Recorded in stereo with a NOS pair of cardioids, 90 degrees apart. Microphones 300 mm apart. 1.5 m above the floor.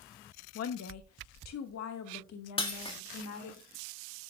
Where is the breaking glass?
20° left, 2 m.